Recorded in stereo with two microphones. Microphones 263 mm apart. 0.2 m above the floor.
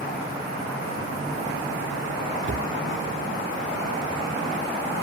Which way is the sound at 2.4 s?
45° right (ahead or behind).